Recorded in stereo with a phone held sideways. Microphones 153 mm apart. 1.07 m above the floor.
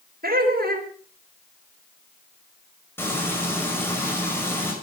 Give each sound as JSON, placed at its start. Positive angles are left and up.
{"t": 0.2, "sound": "laughter", "side_deg": -85, "distance_m": 4.0}
{"t": 3.0, "sound": "frying", "side_deg": 15, "distance_m": 6.5}